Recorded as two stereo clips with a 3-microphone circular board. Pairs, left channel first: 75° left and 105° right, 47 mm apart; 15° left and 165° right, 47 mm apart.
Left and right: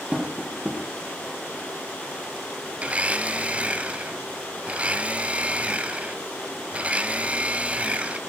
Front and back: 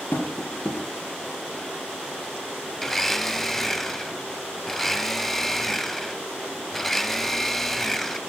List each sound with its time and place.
0.1 s tapping: 35° right, 5.5 m
2.8 s a blender: 70° right, 1.0 m